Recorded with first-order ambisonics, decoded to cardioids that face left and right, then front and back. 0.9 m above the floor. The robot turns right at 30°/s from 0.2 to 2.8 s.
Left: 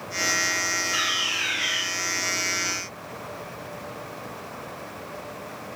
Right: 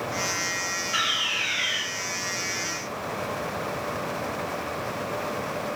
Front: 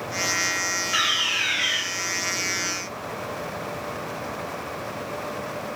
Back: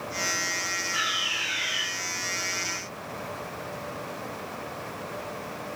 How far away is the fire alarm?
About 3.5 m.